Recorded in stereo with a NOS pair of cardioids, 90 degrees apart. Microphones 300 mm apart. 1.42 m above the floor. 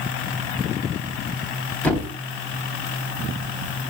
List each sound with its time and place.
1.8 s a thud: 5° left, 3.5 m